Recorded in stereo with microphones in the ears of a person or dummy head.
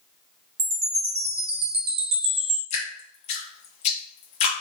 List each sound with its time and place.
0.6 s a chime: 30° right (ahead or behind), 1.0 m
2.7 s dripping: 40° left (ahead or behind), 0.9 m